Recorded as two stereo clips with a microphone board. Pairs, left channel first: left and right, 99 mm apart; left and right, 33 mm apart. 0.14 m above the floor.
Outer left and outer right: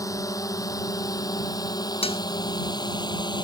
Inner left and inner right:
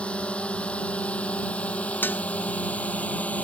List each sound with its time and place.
0.0 s a drone: 35° left (ahead or behind); by 3.4 s 45° left (ahead or behind)
2.0 s dishes clattering: 75° left (ahead or behind)